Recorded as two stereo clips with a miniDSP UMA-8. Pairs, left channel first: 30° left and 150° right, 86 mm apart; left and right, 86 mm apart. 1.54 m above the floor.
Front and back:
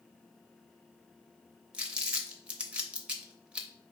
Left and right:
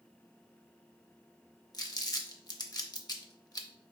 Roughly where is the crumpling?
Behind left.